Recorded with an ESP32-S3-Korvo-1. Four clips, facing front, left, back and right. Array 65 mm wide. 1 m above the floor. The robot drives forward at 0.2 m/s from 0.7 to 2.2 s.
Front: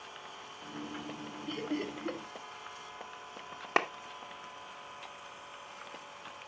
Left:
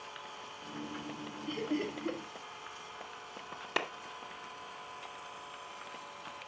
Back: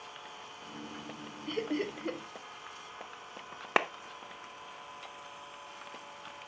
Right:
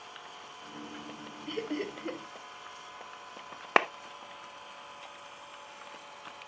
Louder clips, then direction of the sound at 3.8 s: Right 10 dB, back 1 dB; 105° right.